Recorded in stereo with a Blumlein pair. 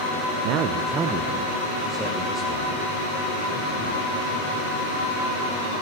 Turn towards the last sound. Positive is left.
turn(degrees=0)